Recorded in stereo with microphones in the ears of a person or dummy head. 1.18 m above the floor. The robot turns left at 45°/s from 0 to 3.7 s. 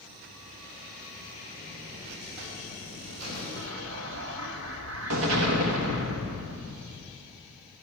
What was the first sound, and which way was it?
A buzzer, 20° right.